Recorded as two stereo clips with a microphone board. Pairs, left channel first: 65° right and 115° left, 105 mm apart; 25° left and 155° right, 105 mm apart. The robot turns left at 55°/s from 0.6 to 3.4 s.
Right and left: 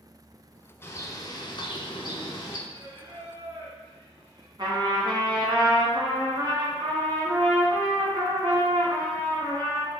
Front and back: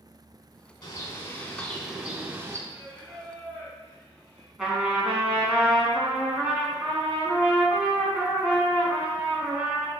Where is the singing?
135° left, 2 m; by 4.5 s 95° left, 2 m.